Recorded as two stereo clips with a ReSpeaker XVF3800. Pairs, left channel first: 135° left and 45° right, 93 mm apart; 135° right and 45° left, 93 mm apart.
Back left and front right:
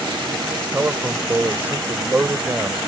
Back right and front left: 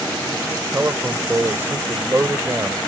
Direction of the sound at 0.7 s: 10° left.